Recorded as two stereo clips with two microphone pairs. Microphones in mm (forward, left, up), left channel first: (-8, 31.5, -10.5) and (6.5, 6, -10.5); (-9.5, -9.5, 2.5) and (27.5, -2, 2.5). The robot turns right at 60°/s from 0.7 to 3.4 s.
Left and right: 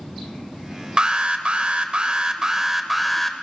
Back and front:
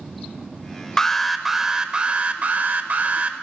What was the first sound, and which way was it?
An alarm, 100° right.